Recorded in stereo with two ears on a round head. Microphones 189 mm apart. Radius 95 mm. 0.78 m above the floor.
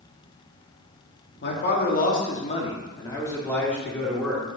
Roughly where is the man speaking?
Left.